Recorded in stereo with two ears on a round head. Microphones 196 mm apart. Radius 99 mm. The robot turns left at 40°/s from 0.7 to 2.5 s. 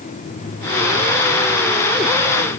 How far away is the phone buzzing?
I don't hear a phone buzzing.